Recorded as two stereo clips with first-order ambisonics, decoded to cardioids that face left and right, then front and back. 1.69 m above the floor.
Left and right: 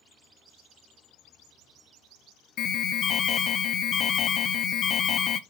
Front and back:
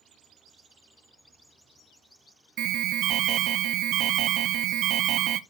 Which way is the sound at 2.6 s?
140° left.